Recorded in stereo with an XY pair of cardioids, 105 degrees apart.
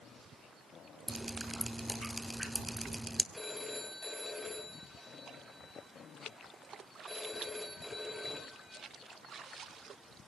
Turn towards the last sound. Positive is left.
turn(degrees=10)